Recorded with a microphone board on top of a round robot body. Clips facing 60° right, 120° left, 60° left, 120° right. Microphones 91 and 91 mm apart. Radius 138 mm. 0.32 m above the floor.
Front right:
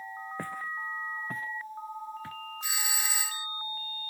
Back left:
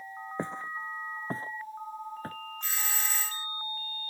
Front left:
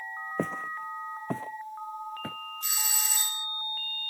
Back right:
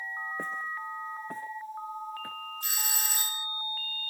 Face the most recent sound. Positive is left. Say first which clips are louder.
# front right 1 dB, front left 1 dB
turn(degrees=-135)